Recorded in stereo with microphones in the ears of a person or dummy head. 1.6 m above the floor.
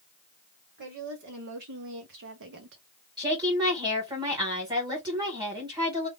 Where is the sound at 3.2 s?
25° right (ahead or behind), 1.9 m.